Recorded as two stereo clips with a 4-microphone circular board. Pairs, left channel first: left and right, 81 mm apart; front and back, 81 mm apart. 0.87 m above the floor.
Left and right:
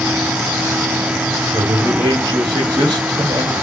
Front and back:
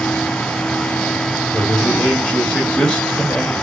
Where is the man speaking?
75° right, 2.5 m.